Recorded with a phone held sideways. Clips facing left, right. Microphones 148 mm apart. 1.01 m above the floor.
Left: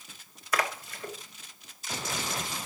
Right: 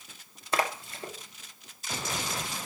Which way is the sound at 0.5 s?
25° right (ahead or behind).